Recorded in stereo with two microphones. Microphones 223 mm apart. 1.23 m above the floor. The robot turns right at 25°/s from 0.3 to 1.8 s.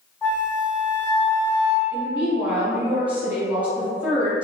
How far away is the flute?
About 1.0 m.